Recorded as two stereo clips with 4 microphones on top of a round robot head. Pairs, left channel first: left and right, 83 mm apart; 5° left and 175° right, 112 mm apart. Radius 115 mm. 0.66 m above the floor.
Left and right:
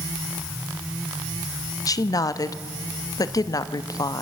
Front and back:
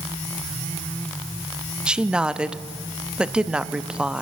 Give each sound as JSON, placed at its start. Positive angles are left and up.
{"t": 1.9, "sound": "a woman speaking", "azimuth_deg": 105, "distance_m": 0.9}